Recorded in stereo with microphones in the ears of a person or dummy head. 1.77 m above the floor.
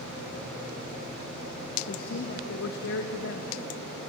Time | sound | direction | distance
1.9 | a man speaking | 50° left (ahead or behind) | 2.5 m